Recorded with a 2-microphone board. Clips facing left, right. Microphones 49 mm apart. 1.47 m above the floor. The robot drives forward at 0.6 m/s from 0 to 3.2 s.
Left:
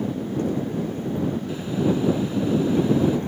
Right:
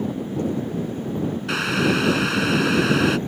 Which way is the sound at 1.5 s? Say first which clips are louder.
Right 5 dB; 85° right.